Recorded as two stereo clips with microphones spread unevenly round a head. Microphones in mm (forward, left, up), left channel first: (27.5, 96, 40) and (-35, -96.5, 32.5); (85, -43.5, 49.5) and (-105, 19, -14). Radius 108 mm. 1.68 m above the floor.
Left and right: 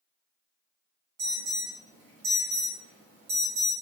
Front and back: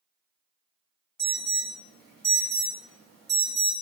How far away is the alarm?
About 1.0 m.